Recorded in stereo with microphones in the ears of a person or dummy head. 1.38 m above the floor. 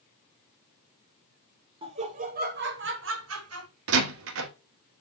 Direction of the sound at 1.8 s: 25° right (ahead or behind).